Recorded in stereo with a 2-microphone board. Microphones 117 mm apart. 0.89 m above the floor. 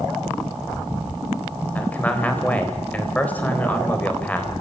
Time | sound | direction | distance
1.8 | a man speaking | 15° left (ahead or behind) | 3.5 m